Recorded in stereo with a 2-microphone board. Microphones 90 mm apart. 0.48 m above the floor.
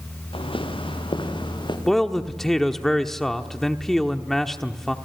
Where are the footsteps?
80° left, 4 m; by 1.8 s 60° left (ahead or behind), 5 m.